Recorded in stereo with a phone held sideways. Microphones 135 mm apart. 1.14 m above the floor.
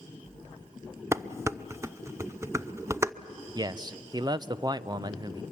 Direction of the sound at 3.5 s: 30° right (ahead or behind).